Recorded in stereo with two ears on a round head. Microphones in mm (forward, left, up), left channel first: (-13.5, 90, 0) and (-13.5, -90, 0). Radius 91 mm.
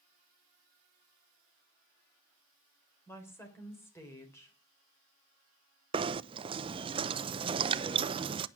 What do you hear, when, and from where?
3.1 s a woman speaking: 10° left (ahead or behind), 3.5 m
5.9 s knocking: 25° right (ahead or behind), 0.5 m